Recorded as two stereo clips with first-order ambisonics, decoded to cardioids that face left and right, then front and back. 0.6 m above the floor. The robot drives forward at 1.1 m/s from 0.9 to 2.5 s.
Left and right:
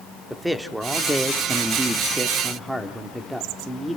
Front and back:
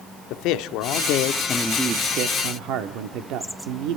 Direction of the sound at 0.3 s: 5° right.